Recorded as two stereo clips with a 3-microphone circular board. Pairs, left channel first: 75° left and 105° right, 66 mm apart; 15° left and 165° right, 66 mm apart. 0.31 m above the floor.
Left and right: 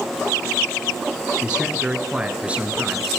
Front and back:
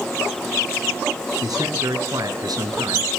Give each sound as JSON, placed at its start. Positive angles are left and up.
{"t": 1.4, "sound": "a man speaking", "azimuth_deg": 180, "distance_m": 4.5}